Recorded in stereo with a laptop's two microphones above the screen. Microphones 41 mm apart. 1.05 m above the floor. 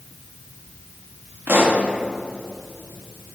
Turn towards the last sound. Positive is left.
turn(degrees=-70)  # may be behind; listen again after turning